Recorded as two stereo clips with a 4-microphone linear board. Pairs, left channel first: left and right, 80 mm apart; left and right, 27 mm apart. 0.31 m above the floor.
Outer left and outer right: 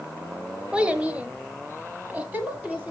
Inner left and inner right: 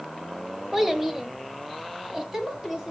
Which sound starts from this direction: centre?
A child speaking, at 0.7 s.